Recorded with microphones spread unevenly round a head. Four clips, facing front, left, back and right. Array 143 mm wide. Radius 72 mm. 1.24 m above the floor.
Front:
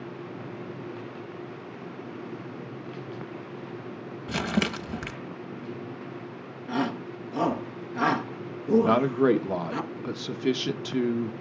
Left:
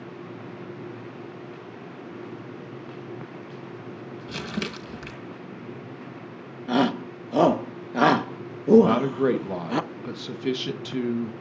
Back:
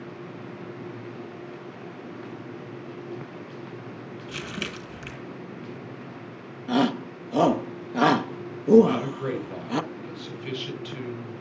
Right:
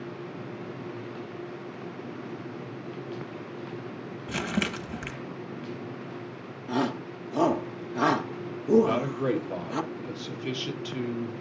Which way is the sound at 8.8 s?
30° left.